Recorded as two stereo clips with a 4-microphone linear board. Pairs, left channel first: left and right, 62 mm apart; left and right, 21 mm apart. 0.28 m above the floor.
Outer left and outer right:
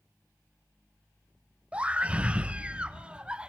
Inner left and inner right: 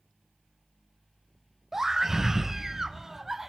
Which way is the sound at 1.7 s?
20° right (ahead or behind).